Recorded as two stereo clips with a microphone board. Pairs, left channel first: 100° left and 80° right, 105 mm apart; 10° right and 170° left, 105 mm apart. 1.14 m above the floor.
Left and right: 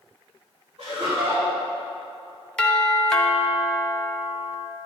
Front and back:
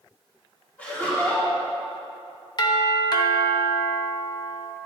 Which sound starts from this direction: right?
Laughter, at 0.8 s.